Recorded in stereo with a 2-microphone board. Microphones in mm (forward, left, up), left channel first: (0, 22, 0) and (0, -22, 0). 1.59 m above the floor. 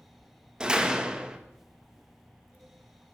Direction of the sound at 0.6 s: 20° right (ahead or behind).